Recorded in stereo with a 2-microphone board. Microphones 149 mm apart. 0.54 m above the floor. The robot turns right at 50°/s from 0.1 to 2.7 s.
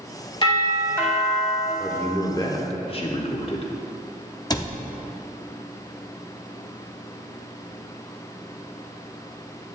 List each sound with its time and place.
0.4 s a doorbell: 125° left, 1.7 m; by 1.7 s 170° right, 1.7 m
1.8 s a man speaking: 5° left, 1.0 m; by 3.7 s 50° left, 1.0 m
4.5 s a cupboard door: 25° left (ahead or behind), 0.5 m